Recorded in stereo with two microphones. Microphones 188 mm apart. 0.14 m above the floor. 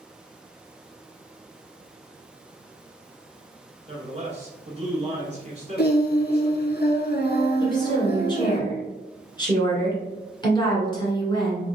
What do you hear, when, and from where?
3.9 s a man speaking: 35° right (ahead or behind), 1.5 m
5.8 s singing: 60° left (ahead or behind), 0.6 m
7.6 s a woman speaking: 25° left (ahead or behind), 1.5 m